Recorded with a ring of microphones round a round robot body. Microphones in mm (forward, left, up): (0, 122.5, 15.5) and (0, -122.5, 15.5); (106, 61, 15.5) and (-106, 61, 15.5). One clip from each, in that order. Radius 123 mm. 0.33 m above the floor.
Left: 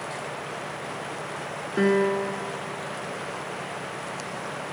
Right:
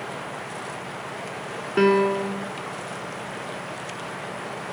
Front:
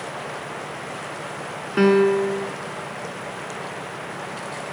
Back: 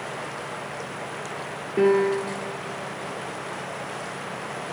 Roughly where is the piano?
Ahead right.